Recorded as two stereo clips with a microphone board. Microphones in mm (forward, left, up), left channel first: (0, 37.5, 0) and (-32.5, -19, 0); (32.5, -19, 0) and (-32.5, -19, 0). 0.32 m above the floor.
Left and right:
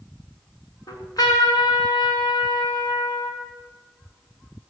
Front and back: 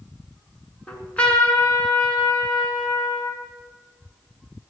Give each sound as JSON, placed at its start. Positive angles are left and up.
{"t": 0.9, "sound": "a trumpet", "azimuth_deg": 70, "distance_m": 2.5}